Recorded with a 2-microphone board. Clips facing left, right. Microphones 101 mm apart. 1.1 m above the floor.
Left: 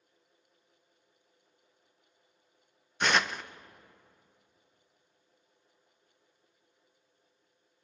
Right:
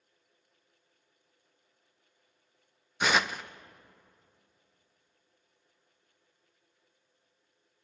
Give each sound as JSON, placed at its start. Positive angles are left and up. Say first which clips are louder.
{"t": 3.0, "sound": "tearing paper", "louder": "right 1 dB", "side_deg": -5, "distance_m": 0.5}